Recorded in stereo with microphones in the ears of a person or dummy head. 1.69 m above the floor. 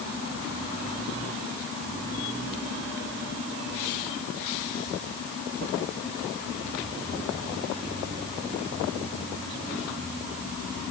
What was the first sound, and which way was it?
Only background noise.